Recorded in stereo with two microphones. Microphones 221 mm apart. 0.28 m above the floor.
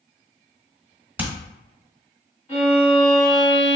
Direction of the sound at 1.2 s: 5° right (ahead or behind).